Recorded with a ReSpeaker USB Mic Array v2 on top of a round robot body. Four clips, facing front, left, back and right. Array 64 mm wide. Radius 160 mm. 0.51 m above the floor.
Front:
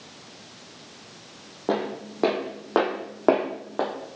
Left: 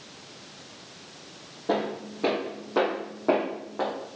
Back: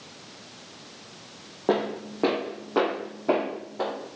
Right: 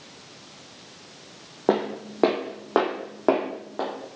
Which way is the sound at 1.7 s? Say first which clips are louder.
Right 4 dB, back 2 dB; 95° right.